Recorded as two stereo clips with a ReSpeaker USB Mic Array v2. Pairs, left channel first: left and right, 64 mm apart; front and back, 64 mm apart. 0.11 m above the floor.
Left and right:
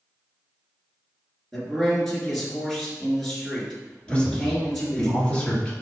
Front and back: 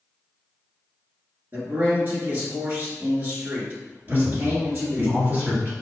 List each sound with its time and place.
1.5 s a man speaking: 175° left, 1.6 m
4.1 s a man speaking: 155° left, 1.9 m